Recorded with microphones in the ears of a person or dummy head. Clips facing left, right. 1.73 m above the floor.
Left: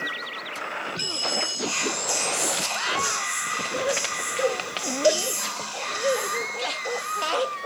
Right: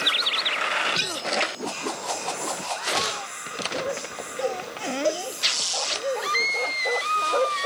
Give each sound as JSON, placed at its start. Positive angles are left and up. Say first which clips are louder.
{"t": 1.6, "sound": "whispering", "louder": "left 1 dB", "side_deg": 75, "distance_m": 0.6}